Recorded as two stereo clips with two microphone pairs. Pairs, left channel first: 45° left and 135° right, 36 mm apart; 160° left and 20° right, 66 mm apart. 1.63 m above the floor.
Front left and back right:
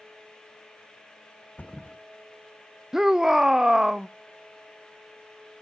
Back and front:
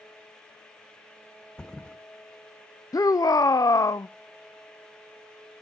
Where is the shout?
150° left, 0.6 m.